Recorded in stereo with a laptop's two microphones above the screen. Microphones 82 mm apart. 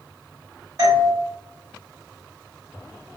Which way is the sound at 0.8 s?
50° right (ahead or behind).